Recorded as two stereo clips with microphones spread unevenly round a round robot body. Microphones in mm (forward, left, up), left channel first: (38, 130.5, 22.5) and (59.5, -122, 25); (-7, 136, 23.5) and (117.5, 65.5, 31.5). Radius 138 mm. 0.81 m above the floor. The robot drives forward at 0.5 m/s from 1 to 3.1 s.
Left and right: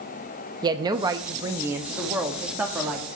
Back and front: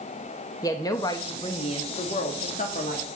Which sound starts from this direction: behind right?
A woman speaking, at 0.6 s.